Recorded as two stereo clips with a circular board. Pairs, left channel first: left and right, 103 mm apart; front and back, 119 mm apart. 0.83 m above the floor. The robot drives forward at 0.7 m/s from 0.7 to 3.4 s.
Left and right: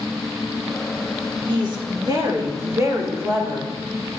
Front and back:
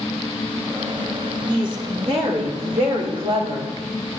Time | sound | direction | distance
1.5 | a woman speaking | 130° right | 1.6 m